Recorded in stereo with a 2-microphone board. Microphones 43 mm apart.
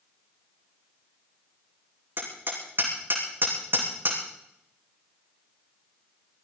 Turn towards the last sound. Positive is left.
turn(degrees=-50)  # may be behind; listen again after turning